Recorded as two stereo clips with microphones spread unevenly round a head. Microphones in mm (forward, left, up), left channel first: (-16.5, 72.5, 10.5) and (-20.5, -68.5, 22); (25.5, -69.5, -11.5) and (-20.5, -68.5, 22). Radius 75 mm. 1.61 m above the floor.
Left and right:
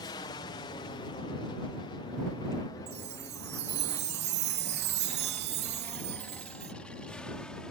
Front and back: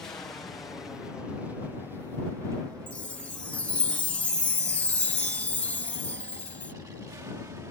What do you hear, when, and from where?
0.0 s an aircraft: 35° left; by 7.7 s 175° left
2.9 s a chime: 70° right